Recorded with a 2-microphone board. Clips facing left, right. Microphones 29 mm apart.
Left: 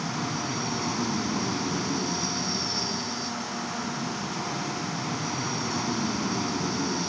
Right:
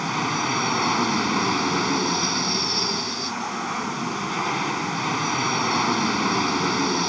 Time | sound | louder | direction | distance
0.0 | an aircraft | right 6 dB | 50° right (ahead or behind) | ?